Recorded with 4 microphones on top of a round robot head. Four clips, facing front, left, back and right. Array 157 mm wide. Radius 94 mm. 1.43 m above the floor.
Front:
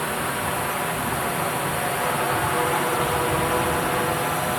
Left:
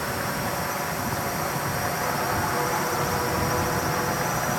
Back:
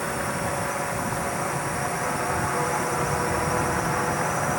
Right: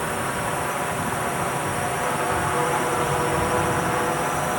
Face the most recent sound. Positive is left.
turn(degrees=-50)